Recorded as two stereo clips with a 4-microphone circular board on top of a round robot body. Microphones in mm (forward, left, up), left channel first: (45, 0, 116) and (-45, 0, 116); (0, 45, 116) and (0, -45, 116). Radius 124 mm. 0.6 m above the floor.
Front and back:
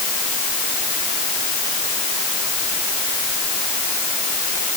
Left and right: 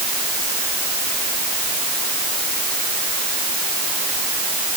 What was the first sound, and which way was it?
Only background noise.